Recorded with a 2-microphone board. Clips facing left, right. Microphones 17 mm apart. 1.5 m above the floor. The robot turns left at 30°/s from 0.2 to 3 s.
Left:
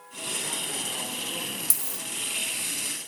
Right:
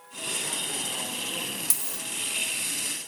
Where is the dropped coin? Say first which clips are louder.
Even; 15° right (ahead or behind), 0.8 m; by 2.0 s 20° right (ahead or behind), 0.8 m.